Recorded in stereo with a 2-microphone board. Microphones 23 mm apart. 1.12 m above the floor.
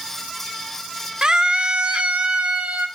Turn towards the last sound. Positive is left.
turn(degrees=-65)  # may be behind; listen again after turning